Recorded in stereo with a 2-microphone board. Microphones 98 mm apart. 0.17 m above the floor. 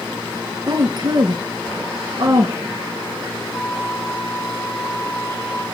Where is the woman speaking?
50° right (ahead or behind), 1.9 m.